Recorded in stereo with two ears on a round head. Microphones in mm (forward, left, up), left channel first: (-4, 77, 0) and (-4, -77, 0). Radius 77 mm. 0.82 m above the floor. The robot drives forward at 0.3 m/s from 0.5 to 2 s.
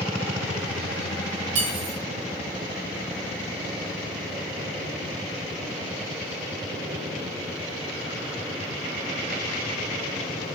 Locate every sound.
1.6 s cutlery clinking: 80° right, 8.5 m